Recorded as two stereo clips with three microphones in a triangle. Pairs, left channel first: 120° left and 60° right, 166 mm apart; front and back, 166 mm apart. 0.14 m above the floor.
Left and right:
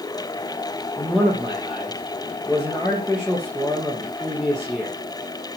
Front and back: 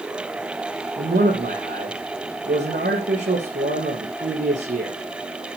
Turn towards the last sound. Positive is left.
turn(degrees=-150)